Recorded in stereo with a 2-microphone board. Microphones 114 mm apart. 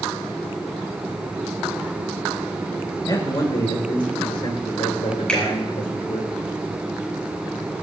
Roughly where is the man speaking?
Left.